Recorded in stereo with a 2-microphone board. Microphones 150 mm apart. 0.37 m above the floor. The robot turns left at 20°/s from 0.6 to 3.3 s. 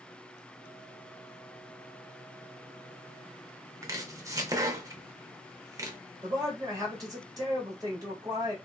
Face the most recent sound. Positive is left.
turn(degrees=-25)  # may be behind; listen again after turning